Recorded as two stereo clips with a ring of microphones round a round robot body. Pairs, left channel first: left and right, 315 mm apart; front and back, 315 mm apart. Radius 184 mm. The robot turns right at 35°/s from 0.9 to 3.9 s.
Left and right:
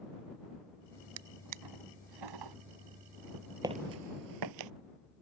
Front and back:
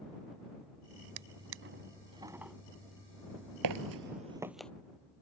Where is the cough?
No cough in this recording.